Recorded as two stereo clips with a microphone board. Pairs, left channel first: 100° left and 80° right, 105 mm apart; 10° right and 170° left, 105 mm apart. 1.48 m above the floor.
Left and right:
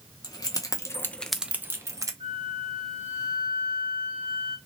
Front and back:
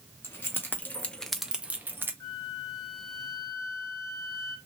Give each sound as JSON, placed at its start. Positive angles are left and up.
{"t": 0.2, "sound": "keys jangling", "azimuth_deg": 55, "distance_m": 1.0}
{"t": 2.2, "sound": "a flute", "azimuth_deg": -65, "distance_m": 1.1}